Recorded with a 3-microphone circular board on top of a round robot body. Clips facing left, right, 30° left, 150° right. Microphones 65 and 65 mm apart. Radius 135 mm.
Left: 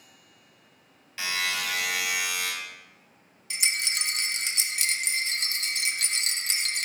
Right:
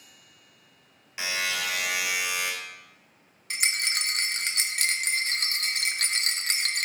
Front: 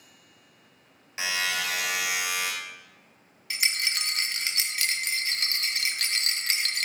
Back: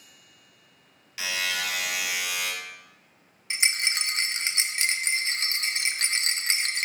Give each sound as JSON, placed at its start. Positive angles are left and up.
{"t": 1.2, "sound": "a buzzer", "azimuth_deg": -20, "distance_m": 2.0}
{"t": 3.5, "sound": "a rattle", "azimuth_deg": -95, "distance_m": 0.9}